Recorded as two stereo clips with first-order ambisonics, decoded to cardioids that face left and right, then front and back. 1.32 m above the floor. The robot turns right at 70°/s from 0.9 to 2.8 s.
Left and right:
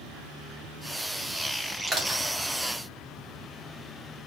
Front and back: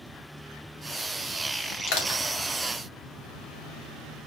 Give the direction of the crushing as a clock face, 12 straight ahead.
1 o'clock.